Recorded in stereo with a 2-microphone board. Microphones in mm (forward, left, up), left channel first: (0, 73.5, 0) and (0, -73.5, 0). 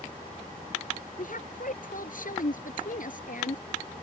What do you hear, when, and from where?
1.2 s a woman speaking: 65° left (ahead or behind)